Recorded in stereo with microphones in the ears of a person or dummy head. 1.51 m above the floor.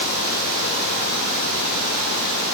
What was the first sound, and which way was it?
Only background noise.